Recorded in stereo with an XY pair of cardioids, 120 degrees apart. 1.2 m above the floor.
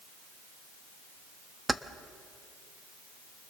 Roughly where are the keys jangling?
Ahead.